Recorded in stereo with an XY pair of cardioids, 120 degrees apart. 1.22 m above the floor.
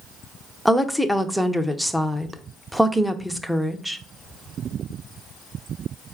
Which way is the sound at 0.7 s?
Straight ahead.